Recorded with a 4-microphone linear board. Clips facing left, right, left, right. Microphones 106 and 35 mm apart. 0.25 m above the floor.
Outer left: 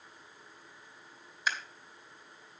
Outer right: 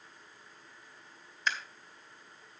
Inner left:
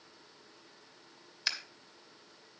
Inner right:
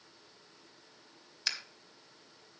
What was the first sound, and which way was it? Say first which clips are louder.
Scissors: even, inner left 1 dB; 5° left (ahead or behind).